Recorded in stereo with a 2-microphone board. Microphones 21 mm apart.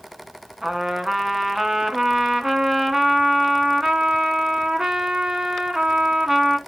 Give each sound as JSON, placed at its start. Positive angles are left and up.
{"t": 0.6, "sound": "a trumpet", "side_deg": -20, "distance_m": 1.1}